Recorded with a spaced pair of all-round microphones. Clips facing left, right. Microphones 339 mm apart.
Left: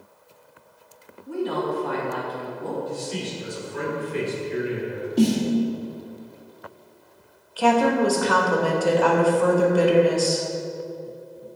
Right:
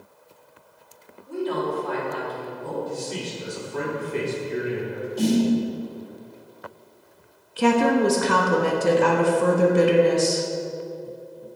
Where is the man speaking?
55° right (ahead or behind), 2.5 m.